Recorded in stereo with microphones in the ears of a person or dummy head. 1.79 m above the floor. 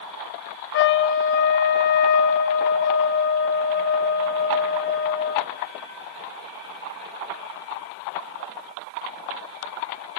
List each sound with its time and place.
0.7 s a trumpet: 65° left (ahead or behind), 0.9 m